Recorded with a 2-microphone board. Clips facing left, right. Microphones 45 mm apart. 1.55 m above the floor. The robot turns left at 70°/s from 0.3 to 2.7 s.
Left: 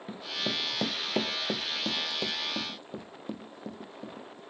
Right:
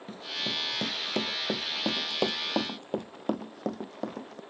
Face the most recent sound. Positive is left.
turn(degrees=-70)  # may be behind; listen again after turning